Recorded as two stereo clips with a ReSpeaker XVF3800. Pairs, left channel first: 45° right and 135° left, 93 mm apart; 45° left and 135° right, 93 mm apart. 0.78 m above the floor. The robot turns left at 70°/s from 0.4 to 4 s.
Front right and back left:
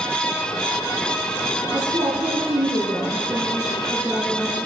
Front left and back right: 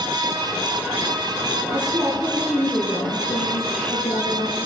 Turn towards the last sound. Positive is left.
turn(degrees=30)